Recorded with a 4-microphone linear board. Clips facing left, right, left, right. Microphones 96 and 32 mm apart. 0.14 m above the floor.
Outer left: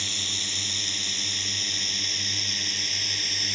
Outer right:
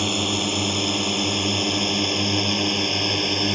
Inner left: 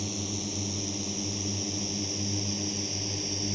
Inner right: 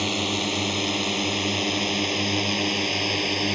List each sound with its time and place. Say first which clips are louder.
0.0 s a drone: outer right 16 dB, inner right 11 dB; 65° right (ahead or behind)